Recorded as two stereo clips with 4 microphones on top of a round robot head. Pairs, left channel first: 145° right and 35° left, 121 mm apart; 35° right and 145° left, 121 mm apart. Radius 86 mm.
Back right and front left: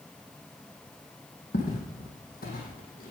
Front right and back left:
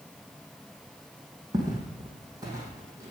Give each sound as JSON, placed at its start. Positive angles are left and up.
{"t": 1.5, "sound": "footsteps", "azimuth_deg": -155, "distance_m": 3.5}